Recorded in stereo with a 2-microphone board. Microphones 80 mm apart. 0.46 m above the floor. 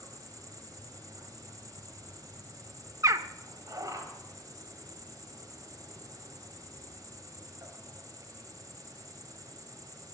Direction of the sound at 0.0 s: 45° right (ahead or behind).